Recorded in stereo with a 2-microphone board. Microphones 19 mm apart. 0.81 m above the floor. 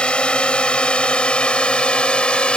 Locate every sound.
0.0 s a drone: 70° left (ahead or behind)